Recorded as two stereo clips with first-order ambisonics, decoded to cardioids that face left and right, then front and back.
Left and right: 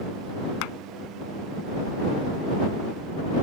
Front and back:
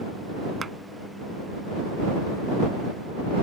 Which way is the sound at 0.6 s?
105° left.